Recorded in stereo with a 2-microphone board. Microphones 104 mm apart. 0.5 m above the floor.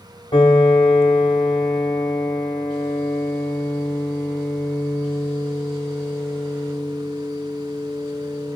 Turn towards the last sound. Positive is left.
turn(degrees=50)  # may be behind; listen again after turning